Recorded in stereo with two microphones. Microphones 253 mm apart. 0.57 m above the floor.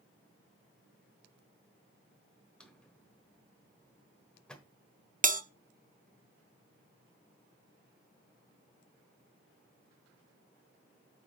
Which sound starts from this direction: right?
A bell, at 5.2 s.